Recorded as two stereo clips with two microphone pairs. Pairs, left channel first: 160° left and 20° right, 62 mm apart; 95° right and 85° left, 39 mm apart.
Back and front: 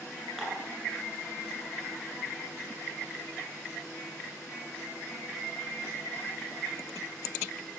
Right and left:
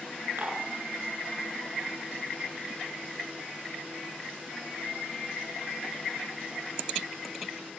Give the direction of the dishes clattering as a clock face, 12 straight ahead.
10 o'clock.